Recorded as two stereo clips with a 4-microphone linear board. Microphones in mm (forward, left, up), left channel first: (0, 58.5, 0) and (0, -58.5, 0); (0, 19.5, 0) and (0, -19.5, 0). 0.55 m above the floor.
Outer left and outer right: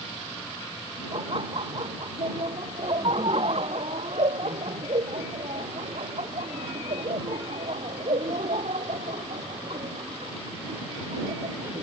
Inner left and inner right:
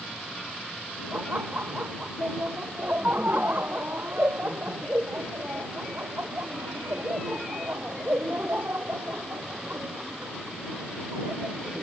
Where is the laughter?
50° right (ahead or behind); by 11.8 s 80° right.